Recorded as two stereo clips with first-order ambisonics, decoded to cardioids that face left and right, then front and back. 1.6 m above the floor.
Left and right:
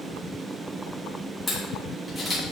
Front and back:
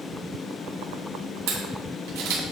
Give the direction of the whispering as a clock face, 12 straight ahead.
I don't hear whispering.